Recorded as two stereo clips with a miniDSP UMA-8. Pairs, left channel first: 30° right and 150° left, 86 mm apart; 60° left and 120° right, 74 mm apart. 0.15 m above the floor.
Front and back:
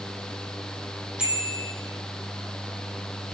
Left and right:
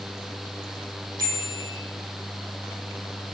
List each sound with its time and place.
1.2 s a bicycle bell: 135° right, 4.5 m